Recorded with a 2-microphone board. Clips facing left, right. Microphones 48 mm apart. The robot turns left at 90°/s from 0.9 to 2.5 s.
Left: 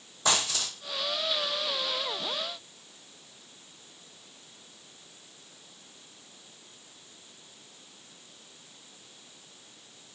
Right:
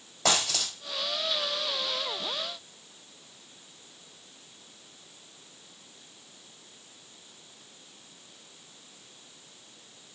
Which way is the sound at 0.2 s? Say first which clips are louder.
Right 1 dB; 70° right (ahead or behind).